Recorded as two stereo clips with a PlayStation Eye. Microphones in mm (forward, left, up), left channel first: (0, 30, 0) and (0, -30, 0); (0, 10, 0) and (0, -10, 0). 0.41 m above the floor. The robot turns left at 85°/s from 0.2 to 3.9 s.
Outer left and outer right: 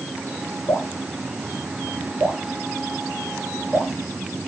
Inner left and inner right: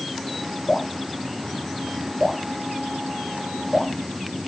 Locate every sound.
0.7 s dripping: 50° left (ahead or behind), 0.9 m; by 3.9 s 20° left (ahead or behind), 0.9 m